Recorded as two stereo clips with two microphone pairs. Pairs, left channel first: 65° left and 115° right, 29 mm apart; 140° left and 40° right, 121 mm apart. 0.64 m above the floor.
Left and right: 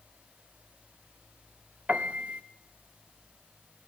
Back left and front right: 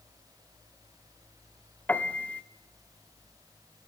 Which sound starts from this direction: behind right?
A piano, at 1.9 s.